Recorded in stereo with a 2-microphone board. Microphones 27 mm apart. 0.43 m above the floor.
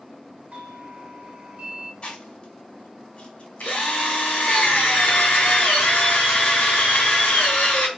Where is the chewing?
45° left (ahead or behind), 4 m.